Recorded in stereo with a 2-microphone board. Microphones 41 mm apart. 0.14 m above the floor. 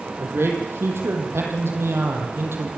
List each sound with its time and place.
0.2 s a man speaking: 75° right (ahead or behind), 6 m